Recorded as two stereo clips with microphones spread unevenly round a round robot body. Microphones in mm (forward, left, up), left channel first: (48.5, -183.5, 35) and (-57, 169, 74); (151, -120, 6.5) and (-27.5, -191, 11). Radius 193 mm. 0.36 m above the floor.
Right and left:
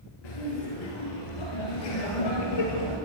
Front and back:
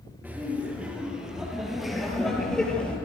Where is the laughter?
75° right, 8 m; by 3.0 s 60° right, 9.5 m.